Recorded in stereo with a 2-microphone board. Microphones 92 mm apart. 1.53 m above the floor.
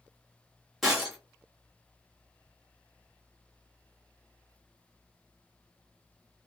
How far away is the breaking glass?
About 1.0 m.